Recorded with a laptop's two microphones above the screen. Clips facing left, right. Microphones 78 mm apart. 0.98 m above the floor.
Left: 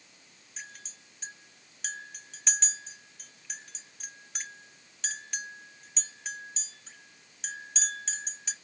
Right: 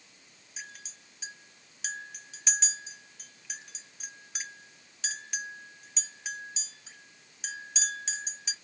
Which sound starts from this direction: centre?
A clink, at 0.6 s.